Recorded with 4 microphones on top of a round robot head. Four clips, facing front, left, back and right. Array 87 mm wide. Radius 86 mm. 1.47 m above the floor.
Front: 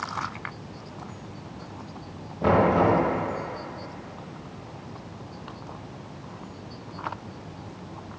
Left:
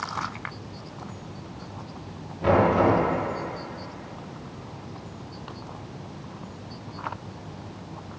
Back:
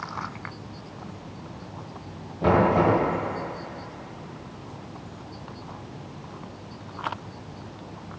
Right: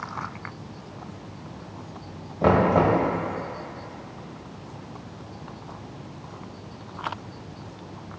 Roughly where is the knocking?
Right.